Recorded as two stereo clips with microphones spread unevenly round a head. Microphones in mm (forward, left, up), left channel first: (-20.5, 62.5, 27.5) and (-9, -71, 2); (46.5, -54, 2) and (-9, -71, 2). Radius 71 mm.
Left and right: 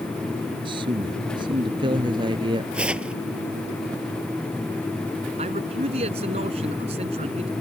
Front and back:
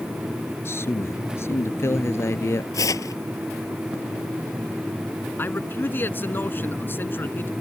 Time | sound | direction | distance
0.7 | a man speaking | 25° right | ?
2.7 | tearing paper | straight ahead | ?
5.4 | a man speaking | 35° right | ?